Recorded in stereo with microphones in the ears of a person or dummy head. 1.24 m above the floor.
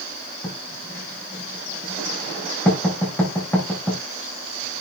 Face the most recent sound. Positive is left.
turn(degrees=10)  # may be behind; listen again after turning